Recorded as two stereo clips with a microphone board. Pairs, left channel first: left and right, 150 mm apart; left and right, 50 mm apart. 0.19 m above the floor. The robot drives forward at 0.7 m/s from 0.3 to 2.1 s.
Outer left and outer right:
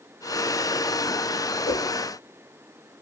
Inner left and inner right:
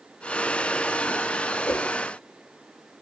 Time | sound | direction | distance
1.6 | a whoosh | 75° left (ahead or behind) | 2.0 m